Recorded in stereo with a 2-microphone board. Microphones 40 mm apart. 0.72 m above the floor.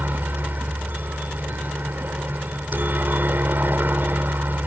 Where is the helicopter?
55° right (ahead or behind).